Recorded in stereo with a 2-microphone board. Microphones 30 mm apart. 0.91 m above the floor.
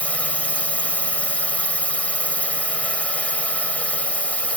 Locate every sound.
0.0 s a drone: 45° left (ahead or behind)